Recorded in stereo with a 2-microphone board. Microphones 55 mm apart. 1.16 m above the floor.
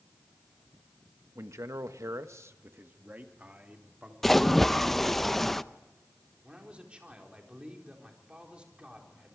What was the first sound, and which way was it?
A man speaking, 60° right (ahead or behind).